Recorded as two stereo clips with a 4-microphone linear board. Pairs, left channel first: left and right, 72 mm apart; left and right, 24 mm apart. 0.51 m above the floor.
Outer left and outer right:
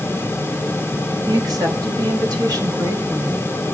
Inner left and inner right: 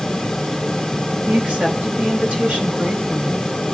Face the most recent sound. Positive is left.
turn(degrees=-60)  # may be behind; listen again after turning